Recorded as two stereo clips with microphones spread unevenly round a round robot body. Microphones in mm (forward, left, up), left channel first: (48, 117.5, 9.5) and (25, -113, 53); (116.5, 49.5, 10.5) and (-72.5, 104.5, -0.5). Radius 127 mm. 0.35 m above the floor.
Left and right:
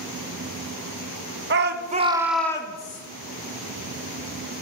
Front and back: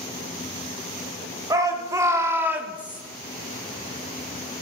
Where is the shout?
130° right, 1.1 m; by 3.0 s 80° left, 1.1 m.